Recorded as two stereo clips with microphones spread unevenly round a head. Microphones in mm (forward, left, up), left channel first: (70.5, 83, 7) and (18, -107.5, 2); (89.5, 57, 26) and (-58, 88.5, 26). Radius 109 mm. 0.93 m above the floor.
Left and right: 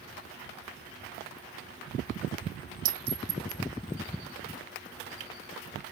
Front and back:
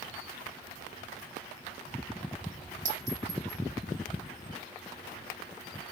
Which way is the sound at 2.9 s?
135° right.